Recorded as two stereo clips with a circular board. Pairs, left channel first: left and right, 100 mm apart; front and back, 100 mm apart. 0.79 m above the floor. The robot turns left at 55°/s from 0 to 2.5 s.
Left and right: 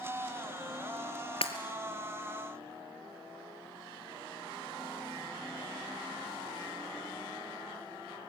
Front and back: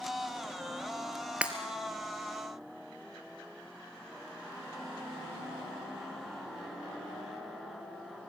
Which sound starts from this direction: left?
Breaking glass, at 1.4 s.